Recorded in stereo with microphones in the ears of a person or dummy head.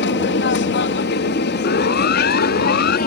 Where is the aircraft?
55° left (ahead or behind); by 3.1 s 50° left (ahead or behind).